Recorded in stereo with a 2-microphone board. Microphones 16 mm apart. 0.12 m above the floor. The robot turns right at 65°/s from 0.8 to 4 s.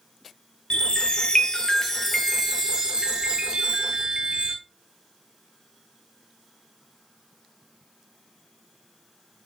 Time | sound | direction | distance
0.7 | a chime | 85° left | 0.6 m